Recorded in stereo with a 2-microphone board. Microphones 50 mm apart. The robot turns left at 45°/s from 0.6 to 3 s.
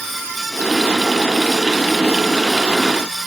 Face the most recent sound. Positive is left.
No sound to turn to.